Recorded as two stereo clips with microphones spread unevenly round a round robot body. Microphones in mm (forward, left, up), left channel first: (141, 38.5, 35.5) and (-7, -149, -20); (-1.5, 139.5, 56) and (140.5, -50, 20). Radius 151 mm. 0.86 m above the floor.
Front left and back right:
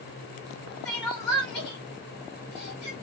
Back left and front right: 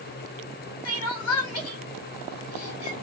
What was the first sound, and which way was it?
Crying, 110° left.